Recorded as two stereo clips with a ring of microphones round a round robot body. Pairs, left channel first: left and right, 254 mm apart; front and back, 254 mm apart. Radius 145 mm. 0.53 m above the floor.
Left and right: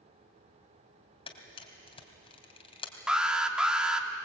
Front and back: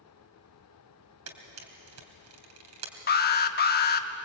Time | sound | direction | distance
1.3 | a camera shutter | 160° left | 3 m
3.1 | an alarm | 5° right | 1.0 m